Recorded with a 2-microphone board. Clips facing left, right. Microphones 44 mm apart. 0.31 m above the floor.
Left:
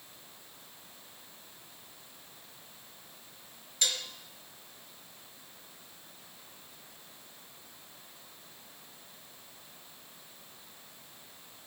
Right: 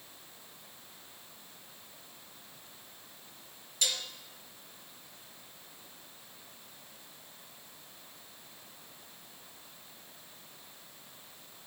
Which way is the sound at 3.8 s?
40° left (ahead or behind).